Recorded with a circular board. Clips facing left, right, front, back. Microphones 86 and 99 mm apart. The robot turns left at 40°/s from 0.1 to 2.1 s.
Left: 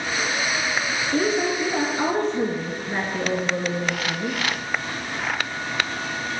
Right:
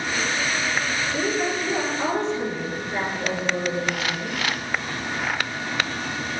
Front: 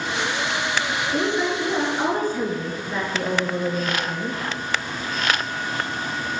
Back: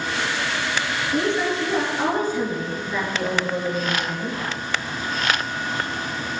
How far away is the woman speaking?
About 3.5 m.